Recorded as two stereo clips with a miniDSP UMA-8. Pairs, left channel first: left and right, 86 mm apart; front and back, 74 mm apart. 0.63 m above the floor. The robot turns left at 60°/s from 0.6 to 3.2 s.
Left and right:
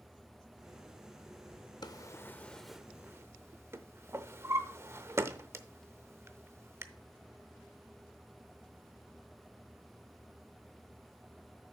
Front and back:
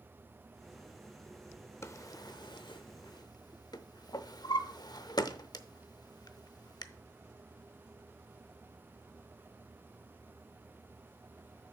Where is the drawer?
50° left, 0.6 m; by 6.8 s 30° right, 0.6 m.